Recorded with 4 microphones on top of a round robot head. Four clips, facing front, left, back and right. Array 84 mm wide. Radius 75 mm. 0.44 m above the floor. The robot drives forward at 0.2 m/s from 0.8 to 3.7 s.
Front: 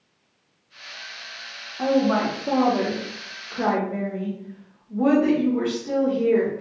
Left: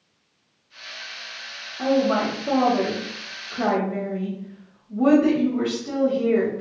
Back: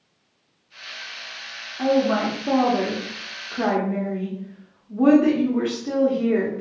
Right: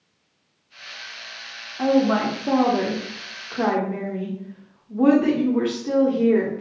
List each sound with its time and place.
1.8 s a woman speaking: 100° right, 0.9 m; by 6.6 s 130° right, 1.0 m